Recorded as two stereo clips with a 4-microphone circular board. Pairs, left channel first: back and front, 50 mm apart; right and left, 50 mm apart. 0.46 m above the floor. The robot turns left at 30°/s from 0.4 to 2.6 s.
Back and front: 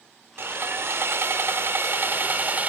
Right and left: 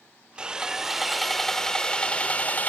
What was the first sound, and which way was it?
Sawing, 20° left.